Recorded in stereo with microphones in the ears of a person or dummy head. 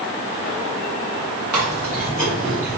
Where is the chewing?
20° right (ahead or behind), 2.0 m.